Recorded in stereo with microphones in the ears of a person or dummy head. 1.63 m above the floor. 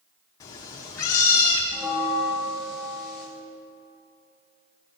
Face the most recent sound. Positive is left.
turn(degrees=-20)  # may be behind; listen again after turning